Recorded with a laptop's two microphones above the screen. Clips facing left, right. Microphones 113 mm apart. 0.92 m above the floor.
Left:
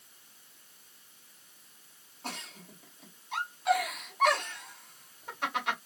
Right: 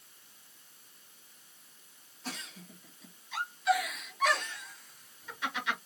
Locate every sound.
2.2 s a giggle: 55° left (ahead or behind), 2.5 m